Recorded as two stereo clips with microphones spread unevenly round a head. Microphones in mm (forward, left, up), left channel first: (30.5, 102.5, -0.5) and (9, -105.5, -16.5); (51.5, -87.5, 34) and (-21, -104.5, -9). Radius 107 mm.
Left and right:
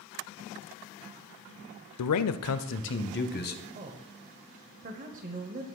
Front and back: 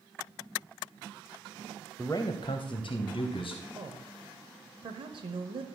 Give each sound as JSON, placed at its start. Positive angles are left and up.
{"t": 2.0, "sound": "a man speaking", "azimuth_deg": 100, "distance_m": 0.5}
{"t": 3.8, "sound": "a woman speaking", "azimuth_deg": -150, "distance_m": 0.9}